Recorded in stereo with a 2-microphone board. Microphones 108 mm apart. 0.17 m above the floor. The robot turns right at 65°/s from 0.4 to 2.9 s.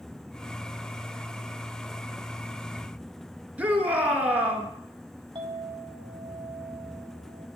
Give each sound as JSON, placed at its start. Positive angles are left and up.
{"t": 3.6, "sound": "a shout", "side_deg": -15, "distance_m": 3.0}
{"t": 5.3, "sound": "a clink", "side_deg": -45, "distance_m": 4.0}